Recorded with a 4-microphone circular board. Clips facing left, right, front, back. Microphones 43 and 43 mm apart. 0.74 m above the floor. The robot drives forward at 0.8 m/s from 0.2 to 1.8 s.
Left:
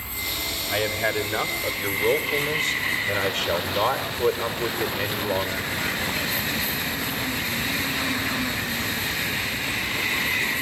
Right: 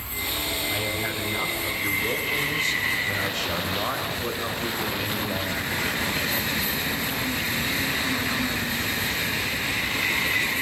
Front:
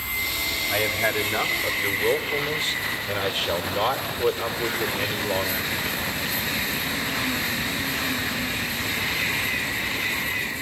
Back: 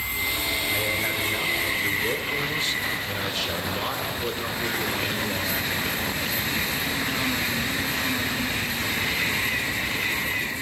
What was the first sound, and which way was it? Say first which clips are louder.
A man speaking: left 8 dB, front 5 dB; 50° left.